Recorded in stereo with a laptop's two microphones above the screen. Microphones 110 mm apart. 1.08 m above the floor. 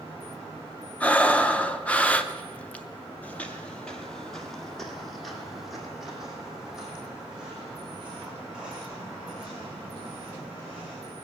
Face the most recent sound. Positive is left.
turn(degrees=-10)  # may be behind; listen again after turning